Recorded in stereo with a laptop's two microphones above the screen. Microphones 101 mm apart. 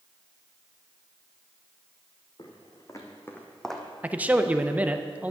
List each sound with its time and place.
2.4 s footsteps: 45° left (ahead or behind), 3 m; by 3.9 s 5° right (ahead or behind), 2 m
4.0 s a man speaking: 15° right (ahead or behind), 0.6 m